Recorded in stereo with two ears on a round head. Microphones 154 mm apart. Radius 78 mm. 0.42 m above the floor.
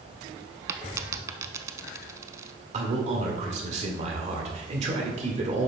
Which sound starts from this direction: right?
A man speaking, at 2.7 s.